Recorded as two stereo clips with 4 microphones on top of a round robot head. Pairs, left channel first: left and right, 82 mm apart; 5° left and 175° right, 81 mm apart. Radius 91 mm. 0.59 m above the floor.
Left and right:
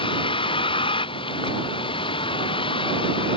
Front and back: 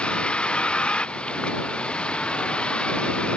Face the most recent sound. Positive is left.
turn(degrees=80)